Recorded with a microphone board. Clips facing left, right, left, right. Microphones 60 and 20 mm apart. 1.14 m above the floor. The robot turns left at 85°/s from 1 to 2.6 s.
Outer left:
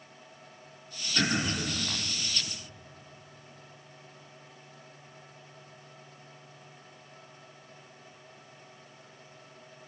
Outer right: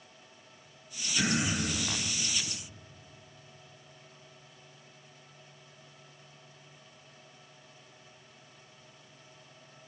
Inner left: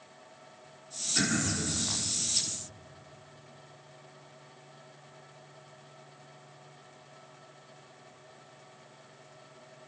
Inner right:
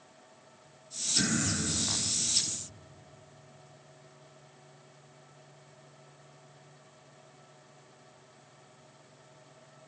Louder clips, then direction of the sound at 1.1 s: Outer left 1 dB, even; 135° left.